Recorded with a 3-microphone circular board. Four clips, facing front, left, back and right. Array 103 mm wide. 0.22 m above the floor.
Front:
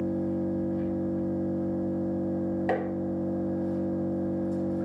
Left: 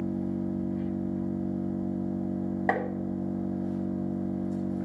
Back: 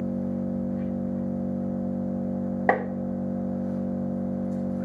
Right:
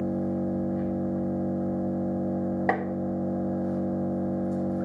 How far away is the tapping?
About 0.7 m.